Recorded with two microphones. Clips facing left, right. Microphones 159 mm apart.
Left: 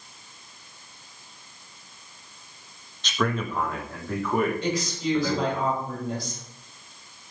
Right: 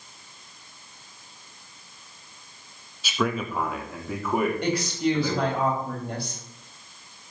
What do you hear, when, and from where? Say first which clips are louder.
3.0 s a man speaking: even; 10° right (ahead or behind), 1.3 m; by 5.6 s 5° right (ahead or behind), 3.5 m
4.6 s a woman speaking: right 3 dB; 60° right (ahead or behind), 3.5 m